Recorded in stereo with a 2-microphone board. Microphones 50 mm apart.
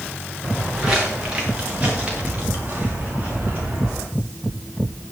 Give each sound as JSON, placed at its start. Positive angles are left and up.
{"t": 0.4, "sound": "footsteps", "side_deg": -10, "distance_m": 4.0}